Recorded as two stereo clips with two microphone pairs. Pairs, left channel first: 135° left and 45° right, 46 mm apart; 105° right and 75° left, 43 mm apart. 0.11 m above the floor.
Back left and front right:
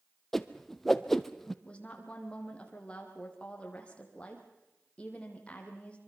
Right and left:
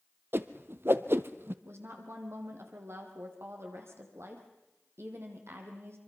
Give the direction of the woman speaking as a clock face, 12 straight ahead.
10 o'clock.